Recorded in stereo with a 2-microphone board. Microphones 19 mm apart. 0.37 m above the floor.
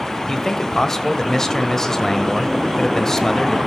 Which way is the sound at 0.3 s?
30° left (ahead or behind).